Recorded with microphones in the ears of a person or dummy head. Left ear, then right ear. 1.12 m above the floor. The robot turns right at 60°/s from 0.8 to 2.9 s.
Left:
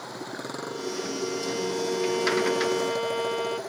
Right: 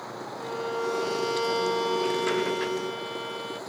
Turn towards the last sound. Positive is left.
turn(degrees=35)